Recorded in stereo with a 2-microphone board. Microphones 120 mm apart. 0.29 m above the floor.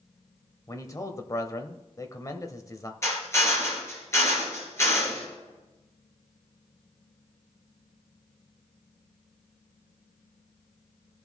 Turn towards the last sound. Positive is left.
turn(degrees=20)  # may be behind; listen again after turning